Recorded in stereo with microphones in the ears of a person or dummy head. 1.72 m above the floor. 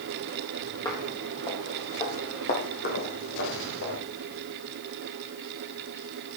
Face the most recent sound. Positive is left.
turn(degrees=60)  # may be behind; listen again after turning